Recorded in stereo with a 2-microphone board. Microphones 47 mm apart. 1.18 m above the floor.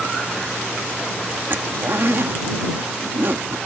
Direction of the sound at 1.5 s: 55° right (ahead or behind).